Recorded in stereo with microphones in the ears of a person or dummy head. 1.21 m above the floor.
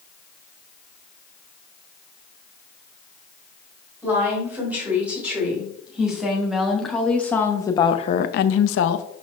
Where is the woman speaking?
10° right (ahead or behind), 3 m; by 9.1 s 65° left (ahead or behind), 0.7 m.